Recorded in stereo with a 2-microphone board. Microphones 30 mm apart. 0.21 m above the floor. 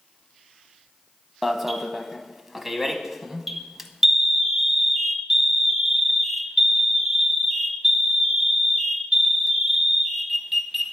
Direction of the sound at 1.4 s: 10° right (ahead or behind).